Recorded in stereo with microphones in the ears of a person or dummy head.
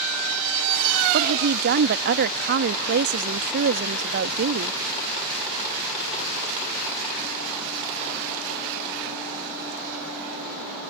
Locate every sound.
1.1 s a woman speaking: 55° right (ahead or behind)